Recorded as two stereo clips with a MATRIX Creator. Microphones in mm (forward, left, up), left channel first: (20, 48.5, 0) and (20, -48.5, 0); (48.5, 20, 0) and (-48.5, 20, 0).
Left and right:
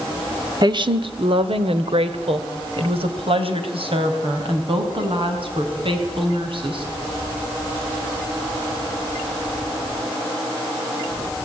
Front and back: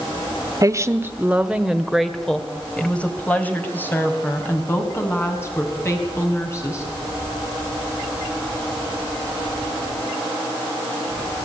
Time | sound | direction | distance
0.6 | a woman speaking | 130° right | 1.4 m